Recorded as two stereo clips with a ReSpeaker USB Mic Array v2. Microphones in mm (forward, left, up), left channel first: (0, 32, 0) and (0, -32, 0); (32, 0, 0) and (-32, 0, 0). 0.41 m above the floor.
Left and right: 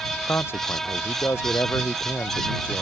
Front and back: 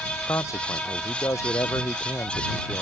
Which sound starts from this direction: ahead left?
A man speaking, at 0.3 s.